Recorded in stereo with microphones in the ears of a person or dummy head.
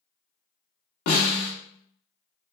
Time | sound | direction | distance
1.1 | a snare drum | 50° left (ahead or behind) | 1.1 m